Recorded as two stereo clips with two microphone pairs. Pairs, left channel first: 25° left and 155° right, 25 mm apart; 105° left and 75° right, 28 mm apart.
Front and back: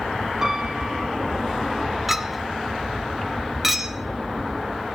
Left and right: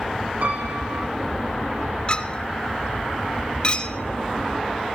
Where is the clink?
115° left, 1.0 m.